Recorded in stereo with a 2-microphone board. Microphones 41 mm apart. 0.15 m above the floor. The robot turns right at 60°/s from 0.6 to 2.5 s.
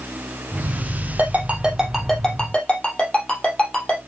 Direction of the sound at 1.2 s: 50° right (ahead or behind).